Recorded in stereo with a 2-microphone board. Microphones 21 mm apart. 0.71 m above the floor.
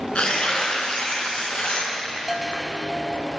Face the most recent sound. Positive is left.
turn(degrees=-15)  # may be behind; listen again after turning